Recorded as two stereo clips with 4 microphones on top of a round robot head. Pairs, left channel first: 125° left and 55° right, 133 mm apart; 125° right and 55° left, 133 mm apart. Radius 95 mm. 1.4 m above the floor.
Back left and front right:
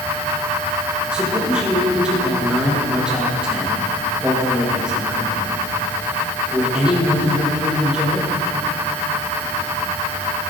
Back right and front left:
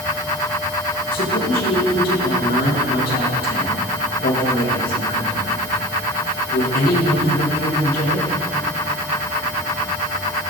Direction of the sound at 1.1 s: 135° right.